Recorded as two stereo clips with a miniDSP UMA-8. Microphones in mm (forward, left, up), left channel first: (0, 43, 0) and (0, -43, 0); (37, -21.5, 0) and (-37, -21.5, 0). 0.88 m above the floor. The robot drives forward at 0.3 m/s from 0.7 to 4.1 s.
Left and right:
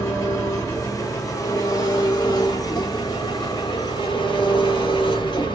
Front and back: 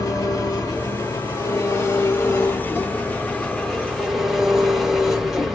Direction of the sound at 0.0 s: 40° left.